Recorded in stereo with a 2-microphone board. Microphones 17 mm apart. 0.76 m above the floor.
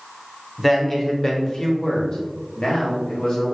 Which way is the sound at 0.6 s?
10° left (ahead or behind).